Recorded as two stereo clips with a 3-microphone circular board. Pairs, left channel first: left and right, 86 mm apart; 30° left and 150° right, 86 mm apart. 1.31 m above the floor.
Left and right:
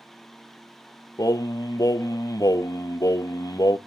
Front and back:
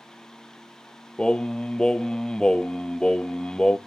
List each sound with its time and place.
1.2 s singing: 110° left, 0.7 m